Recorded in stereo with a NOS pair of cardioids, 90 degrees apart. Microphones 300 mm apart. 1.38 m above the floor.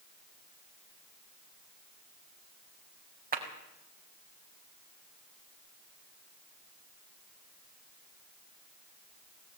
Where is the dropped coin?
No dropped coin in this recording.